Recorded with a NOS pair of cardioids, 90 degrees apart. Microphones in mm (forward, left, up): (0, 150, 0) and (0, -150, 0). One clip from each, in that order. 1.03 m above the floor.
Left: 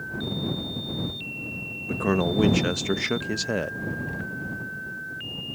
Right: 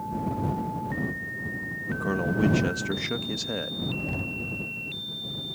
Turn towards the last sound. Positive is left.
turn(degrees=-30)